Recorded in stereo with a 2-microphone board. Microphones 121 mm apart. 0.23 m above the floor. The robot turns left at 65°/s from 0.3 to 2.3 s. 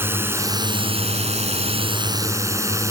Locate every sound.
0.0 s a drone: 20° right; by 2.9 s 150° right